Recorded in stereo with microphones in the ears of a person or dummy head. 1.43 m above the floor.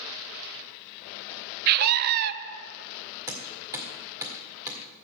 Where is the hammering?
15° right (ahead or behind), 1.9 m.